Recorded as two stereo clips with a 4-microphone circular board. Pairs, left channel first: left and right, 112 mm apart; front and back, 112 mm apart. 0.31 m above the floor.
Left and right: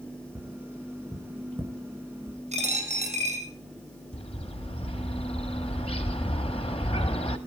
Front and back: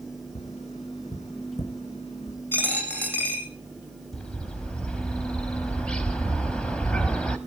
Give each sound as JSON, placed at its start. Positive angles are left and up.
{"t": 0.3, "sound": "tapping", "azimuth_deg": -15, "distance_m": 2.5}
{"t": 2.5, "sound": "a dropped coin", "azimuth_deg": -75, "distance_m": 3.0}
{"t": 4.1, "sound": "a bird", "azimuth_deg": 80, "distance_m": 1.0}